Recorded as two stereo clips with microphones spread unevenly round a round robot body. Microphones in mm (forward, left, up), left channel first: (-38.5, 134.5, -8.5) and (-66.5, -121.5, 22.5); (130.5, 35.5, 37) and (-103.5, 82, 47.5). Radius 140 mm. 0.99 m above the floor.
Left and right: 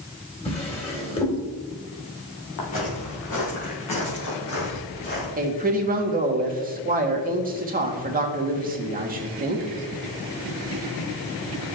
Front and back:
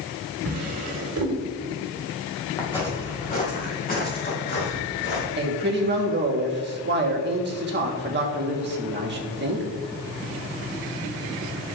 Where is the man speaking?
155° right, 1.4 m.